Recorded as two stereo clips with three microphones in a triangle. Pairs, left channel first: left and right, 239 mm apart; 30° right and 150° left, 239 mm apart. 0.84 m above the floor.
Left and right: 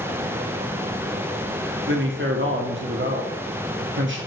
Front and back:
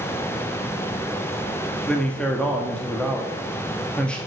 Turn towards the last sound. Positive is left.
turn(degrees=-115)